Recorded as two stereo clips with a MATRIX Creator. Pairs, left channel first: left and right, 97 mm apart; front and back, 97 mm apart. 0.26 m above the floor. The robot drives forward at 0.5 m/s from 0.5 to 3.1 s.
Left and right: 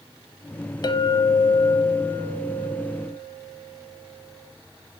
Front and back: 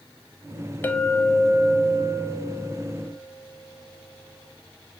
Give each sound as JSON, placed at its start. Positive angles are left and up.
{"t": 0.8, "sound": "a clink", "azimuth_deg": 65, "distance_m": 0.8}